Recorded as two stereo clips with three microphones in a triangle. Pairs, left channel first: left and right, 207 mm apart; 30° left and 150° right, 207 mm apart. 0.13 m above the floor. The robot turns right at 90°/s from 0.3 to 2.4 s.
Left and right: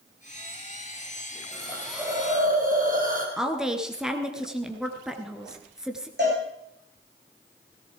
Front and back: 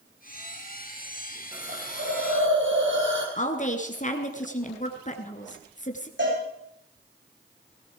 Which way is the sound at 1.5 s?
145° left.